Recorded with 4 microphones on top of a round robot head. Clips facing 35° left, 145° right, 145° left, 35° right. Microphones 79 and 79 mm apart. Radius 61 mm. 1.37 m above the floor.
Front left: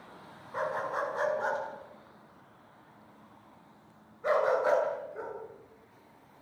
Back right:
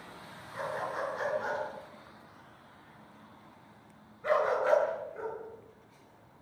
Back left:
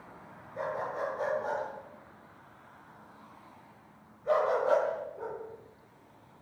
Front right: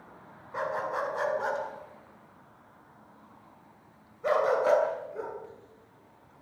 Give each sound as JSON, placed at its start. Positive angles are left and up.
{"t": 0.5, "sound": "a dog barking", "azimuth_deg": -20, "distance_m": 8.0}